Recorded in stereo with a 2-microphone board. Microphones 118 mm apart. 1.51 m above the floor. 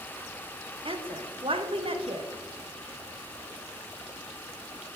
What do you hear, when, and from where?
0.8 s a woman speaking: 50° right (ahead or behind), 0.7 m